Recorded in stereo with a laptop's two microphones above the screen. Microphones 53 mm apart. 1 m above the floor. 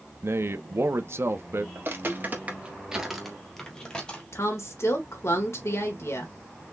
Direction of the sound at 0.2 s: 55° right (ahead or behind).